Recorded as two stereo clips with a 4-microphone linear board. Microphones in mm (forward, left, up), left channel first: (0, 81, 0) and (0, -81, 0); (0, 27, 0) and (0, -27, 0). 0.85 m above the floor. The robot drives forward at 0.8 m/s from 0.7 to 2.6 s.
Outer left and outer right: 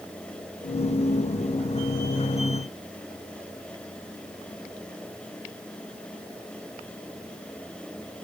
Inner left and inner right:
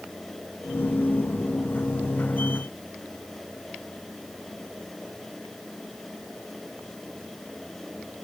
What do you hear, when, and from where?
Only background noise.